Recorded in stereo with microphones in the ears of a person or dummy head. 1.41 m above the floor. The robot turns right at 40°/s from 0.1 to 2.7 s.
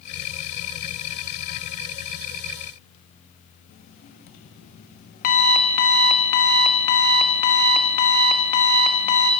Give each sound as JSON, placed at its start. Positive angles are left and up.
{"t": 3.7, "sound": "an alarm clock", "side_deg": 50, "distance_m": 1.2}